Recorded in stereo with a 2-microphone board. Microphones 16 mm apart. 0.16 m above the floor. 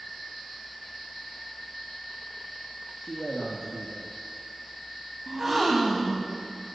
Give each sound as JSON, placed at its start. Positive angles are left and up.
{"t": 3.0, "sound": "a man speaking", "side_deg": 45, "distance_m": 2.5}
{"t": 5.3, "sound": "a gasp", "side_deg": -20, "distance_m": 3.0}